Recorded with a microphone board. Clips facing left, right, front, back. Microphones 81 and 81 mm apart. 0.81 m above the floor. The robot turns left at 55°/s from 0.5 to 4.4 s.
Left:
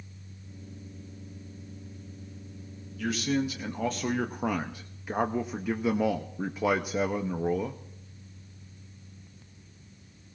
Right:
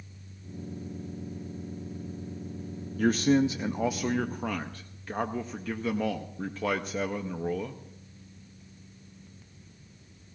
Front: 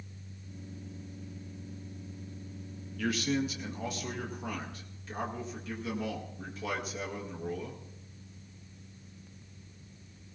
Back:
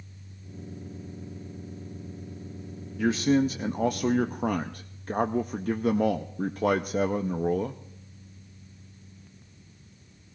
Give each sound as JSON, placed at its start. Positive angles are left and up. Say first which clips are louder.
{"t": 3.0, "sound": "a man speaking", "louder": "right 6 dB, back 8 dB", "azimuth_deg": -115, "distance_m": 0.5}